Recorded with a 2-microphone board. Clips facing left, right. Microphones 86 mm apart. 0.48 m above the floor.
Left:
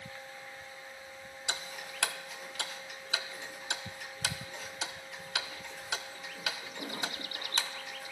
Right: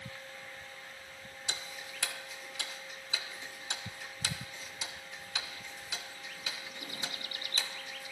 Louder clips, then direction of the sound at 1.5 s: Left 4 dB; 70° left (ahead or behind).